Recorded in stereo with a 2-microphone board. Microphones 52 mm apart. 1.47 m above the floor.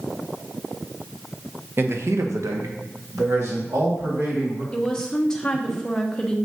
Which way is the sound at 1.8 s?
50° right (ahead or behind).